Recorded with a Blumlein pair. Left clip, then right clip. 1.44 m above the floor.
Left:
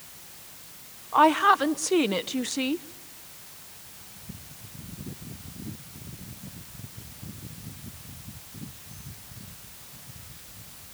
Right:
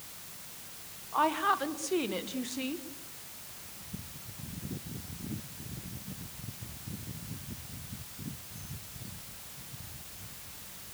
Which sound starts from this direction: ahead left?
A woman speaking, at 1.1 s.